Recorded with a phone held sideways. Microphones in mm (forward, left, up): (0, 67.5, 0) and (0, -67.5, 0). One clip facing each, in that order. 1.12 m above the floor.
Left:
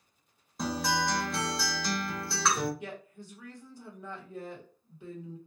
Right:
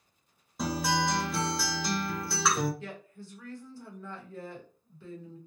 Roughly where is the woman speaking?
Centre.